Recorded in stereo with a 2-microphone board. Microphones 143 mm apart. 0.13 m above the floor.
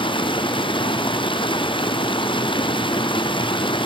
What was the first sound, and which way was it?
Running water, 35° left (ahead or behind).